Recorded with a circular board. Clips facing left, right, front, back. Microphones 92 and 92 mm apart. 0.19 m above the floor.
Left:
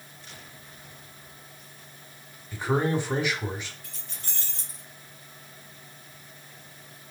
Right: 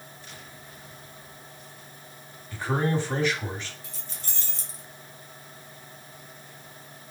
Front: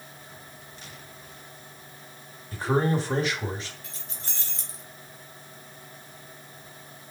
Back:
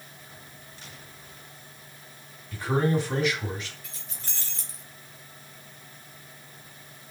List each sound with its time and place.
2.5 s a man speaking: 25° left, 1.2 m
3.8 s keys jangling: 90° left, 1.8 m